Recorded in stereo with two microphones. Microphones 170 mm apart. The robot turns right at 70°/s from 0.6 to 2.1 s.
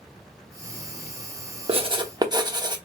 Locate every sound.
1.7 s writing: 35° right (ahead or behind), 0.8 m; by 2.8 s 25° right (ahead or behind), 0.8 m